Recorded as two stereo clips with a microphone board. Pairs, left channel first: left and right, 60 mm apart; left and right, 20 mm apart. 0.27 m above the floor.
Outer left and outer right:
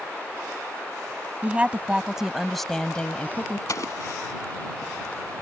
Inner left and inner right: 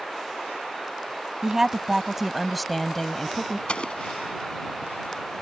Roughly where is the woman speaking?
Right.